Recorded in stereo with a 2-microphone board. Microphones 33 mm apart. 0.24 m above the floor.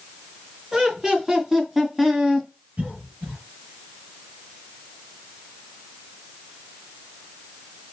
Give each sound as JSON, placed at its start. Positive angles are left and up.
{"t": 0.7, "sound": "laughter", "side_deg": -20, "distance_m": 3.5}
{"t": 2.8, "sound": "a cough", "side_deg": -45, "distance_m": 4.0}